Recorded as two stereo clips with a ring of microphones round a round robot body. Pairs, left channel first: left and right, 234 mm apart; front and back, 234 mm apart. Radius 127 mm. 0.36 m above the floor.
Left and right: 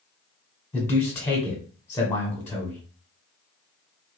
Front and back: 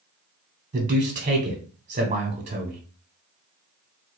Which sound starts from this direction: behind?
A man speaking, at 0.7 s.